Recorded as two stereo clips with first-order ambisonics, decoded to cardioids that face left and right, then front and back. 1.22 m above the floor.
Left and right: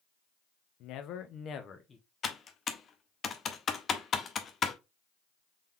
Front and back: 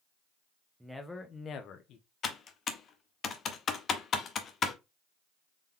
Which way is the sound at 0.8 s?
100° left.